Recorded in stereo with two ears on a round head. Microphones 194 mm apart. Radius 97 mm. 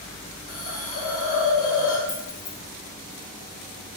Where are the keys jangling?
60° left (ahead or behind), 3.5 m.